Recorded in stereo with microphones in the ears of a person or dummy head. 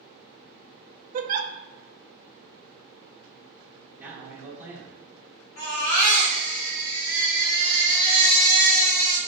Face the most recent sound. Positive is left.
turn(degrees=55)  # may be behind; listen again after turning